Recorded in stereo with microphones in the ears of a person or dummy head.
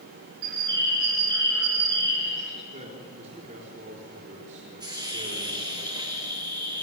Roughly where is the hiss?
Centre.